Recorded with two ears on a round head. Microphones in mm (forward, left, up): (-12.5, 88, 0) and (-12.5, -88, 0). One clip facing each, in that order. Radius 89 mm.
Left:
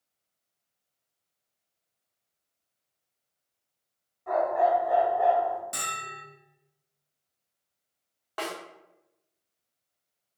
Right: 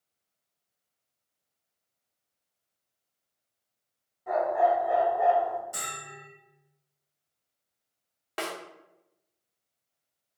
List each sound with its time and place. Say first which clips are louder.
4.3 s a dog barking: even; 10° right (ahead or behind), 1.9 m; by 5.6 s 5° left (ahead or behind), 1.4 m
5.7 s a bell: left 2 dB; 70° left (ahead or behind), 1.7 m
8.4 s a snare drum: even; 30° right (ahead or behind), 0.9 m